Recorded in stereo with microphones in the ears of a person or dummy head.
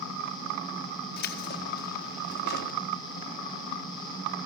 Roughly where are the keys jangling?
Left.